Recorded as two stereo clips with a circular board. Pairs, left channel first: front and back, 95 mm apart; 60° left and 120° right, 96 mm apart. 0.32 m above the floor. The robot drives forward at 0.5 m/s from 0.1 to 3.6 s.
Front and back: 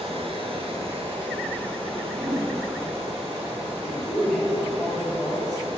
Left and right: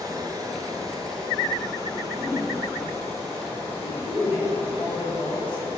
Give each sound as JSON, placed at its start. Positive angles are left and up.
{"t": 0.0, "sound": "running water", "azimuth_deg": -170, "distance_m": 1.1}
{"t": 2.1, "sound": "a whoosh", "azimuth_deg": 145, "distance_m": 1.7}
{"t": 3.8, "sound": "a woman speaking", "azimuth_deg": 85, "distance_m": 1.7}